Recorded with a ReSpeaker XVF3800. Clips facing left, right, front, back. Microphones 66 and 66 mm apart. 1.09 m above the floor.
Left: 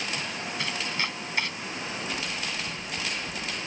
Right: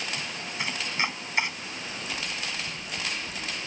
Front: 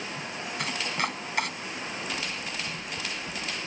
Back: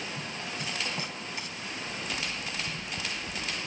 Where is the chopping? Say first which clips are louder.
Right 3 dB, front 6 dB; 20° right.